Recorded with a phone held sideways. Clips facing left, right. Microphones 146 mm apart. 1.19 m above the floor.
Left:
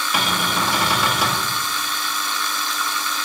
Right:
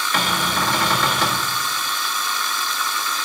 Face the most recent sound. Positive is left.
turn(degrees=10)  # may be behind; listen again after turning